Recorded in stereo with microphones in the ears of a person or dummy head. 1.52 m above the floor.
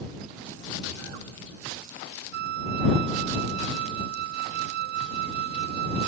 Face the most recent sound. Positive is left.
turn(degrees=-60)  # may be behind; listen again after turning